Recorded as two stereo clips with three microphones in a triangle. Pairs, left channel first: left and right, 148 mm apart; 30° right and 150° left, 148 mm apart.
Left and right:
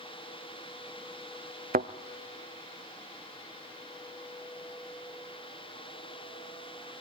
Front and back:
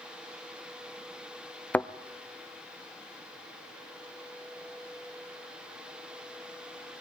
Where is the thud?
110° right, 0.7 m.